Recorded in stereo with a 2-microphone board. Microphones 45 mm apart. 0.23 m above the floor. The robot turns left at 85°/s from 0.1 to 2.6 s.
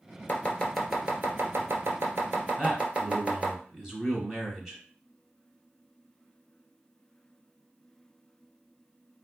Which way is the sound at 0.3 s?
45° left (ahead or behind).